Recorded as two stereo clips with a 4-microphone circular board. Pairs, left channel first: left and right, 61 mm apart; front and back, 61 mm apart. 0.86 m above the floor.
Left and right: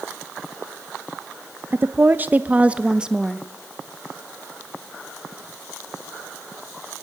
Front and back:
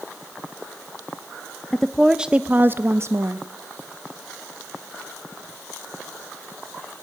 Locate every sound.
1.7 s a woman speaking: 75° right, 0.7 m; by 3.5 s 170° right, 1.0 m